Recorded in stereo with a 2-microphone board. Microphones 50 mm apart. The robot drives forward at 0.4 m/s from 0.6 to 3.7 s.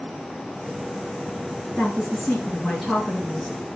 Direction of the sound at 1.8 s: 5° left (ahead or behind).